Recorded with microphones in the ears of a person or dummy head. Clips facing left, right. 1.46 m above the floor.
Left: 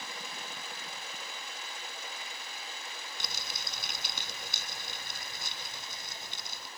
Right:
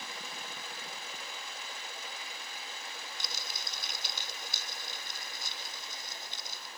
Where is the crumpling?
50° left (ahead or behind).